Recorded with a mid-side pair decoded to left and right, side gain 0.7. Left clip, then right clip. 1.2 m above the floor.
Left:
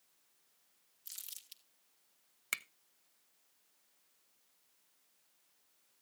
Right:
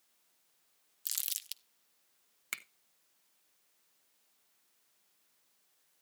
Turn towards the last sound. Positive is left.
turn(degrees=10)